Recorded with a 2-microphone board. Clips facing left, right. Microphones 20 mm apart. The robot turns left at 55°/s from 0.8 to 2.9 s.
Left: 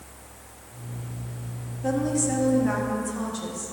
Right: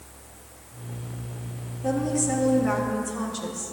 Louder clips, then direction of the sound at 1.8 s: Even; 25° left.